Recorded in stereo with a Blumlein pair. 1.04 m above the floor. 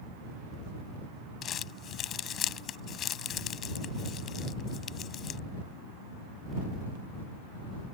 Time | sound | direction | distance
1.4 | crumpling | 30° left | ?